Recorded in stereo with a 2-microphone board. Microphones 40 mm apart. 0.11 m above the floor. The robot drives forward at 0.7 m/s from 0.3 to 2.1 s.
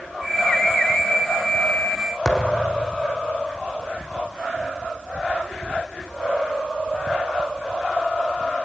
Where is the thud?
20° left (ahead or behind), 2.5 m.